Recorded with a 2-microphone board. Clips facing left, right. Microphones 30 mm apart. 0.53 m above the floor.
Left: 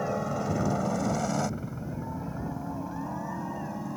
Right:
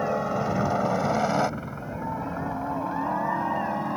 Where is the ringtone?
No ringtone in this recording.